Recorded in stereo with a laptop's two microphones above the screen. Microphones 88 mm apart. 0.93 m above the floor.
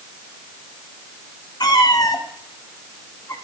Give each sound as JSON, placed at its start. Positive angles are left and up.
{"t": 1.6, "sound": "a cat meowing", "side_deg": 50, "distance_m": 1.4}